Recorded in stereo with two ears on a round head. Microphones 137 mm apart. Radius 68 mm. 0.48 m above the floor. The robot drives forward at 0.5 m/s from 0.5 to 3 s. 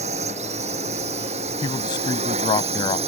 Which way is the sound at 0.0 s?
45° right (ahead or behind).